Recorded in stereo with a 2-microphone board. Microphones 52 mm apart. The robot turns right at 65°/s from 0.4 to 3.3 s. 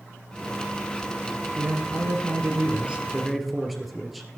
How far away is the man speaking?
About 2.5 m.